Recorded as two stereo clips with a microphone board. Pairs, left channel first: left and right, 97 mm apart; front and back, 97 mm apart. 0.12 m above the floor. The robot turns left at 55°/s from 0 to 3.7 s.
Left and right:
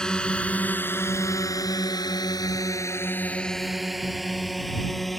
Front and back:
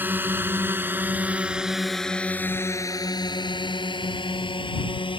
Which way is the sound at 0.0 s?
160° left.